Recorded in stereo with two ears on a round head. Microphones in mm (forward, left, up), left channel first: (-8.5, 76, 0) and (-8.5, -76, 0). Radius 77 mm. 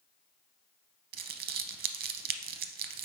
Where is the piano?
No piano in this recording.